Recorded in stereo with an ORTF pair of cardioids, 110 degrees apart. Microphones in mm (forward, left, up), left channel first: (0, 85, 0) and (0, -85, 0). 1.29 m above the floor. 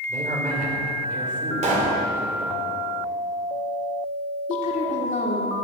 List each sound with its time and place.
0.1 s a man speaking: 55° right, 4 m
1.6 s a pop: 45° right, 3 m
4.5 s a woman speaking: 55° left, 2.5 m